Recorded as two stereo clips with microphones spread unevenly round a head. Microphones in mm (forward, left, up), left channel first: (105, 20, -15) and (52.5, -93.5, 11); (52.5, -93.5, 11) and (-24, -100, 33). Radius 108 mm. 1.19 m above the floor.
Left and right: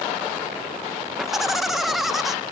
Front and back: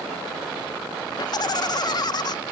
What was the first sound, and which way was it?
Laughter, 25° right.